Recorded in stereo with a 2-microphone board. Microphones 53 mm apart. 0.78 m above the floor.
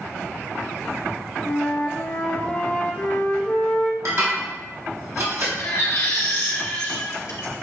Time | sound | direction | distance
1.4 | a flute | 35° left (ahead or behind) | 0.9 m
4.0 | dishes clattering | 55° right (ahead or behind) | 1.2 m
5.6 | a baby crying | 70° left (ahead or behind) | 1.3 m